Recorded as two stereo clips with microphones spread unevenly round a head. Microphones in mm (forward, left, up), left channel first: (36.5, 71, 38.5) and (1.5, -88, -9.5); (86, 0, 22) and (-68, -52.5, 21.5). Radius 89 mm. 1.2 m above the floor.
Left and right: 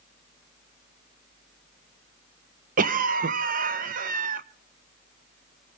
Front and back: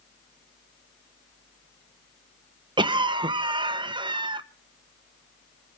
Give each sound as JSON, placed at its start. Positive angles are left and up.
{"t": 2.8, "sound": "a cough", "azimuth_deg": -100, "distance_m": 1.2}